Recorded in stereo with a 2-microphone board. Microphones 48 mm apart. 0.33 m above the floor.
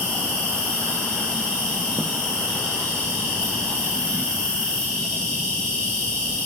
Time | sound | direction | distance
0.0 | an insect | 15° left (ahead or behind) | 6.5 m